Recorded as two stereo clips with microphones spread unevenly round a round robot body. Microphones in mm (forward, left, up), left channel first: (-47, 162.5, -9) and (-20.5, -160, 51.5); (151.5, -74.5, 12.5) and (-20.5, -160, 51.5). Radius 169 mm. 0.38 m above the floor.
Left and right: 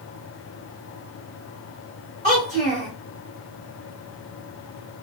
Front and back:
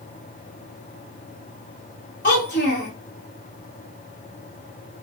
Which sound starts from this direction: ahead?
A child speaking, at 2.2 s.